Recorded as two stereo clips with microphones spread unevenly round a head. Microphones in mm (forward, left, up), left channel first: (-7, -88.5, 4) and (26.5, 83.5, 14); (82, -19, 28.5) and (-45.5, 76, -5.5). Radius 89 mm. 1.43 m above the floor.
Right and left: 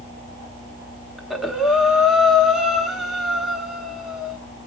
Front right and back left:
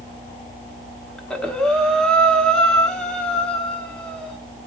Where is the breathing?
5° left, 1.0 m.